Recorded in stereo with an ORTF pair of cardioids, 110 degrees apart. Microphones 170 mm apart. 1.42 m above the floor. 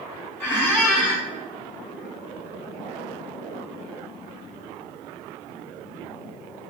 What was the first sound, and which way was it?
A squeak, 10° left.